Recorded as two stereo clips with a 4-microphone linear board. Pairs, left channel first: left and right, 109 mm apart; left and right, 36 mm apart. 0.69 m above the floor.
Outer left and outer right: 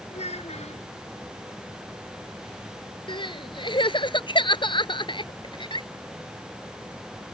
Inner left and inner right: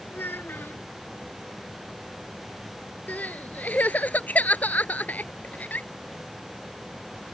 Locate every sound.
0.1 s a child speaking: 85° left
3.1 s crying: 45° left (ahead or behind)